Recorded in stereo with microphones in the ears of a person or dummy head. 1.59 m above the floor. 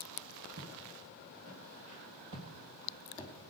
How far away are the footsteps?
About 4 m.